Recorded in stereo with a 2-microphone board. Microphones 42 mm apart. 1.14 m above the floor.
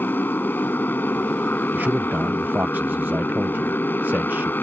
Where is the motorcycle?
50° left (ahead or behind).